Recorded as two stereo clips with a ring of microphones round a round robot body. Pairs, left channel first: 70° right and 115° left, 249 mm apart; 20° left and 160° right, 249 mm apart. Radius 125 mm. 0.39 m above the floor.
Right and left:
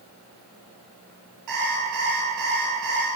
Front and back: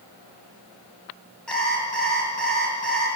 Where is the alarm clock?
110° left, 6.5 m.